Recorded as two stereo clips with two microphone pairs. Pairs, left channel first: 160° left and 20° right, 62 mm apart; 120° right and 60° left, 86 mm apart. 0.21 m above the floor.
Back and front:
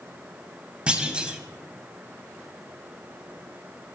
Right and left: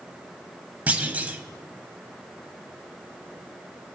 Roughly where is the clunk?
Ahead left.